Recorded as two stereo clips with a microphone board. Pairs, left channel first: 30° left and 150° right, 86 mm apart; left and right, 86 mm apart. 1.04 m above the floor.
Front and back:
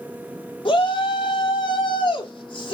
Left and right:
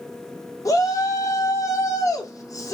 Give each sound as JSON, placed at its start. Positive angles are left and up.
{"t": 0.7, "sound": "a shout", "azimuth_deg": 40, "distance_m": 2.0}